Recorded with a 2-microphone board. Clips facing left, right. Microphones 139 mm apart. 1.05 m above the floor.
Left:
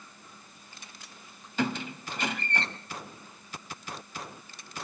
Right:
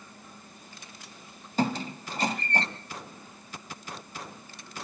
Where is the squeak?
40° right (ahead or behind), 1.7 m.